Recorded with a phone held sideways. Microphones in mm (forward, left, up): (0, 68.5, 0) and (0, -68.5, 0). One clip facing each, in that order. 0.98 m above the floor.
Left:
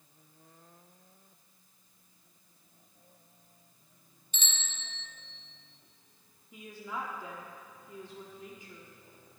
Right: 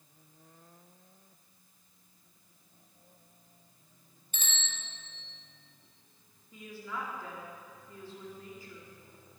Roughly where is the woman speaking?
Centre.